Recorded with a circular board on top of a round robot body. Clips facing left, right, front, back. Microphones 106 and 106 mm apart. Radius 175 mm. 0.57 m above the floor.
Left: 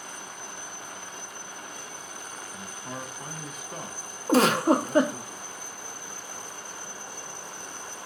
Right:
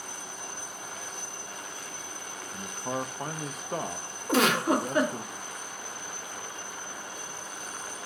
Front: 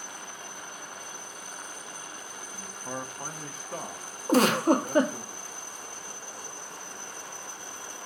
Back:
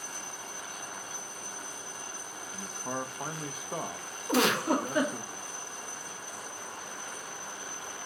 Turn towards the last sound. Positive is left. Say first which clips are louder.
# left 4 dB, front 5 dB
turn(degrees=40)